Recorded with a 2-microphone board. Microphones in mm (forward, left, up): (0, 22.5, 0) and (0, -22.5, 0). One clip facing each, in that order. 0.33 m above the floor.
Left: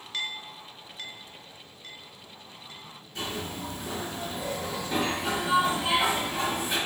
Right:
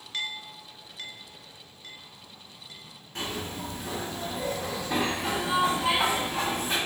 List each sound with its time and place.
3.1 s a zipper: 65° right (ahead or behind), 1.8 m